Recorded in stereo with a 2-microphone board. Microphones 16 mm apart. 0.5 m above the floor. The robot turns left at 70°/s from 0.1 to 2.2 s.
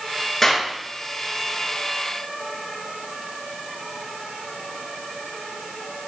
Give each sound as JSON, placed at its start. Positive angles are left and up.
{"t": 0.4, "sound": "a clap", "side_deg": 10, "distance_m": 7.0}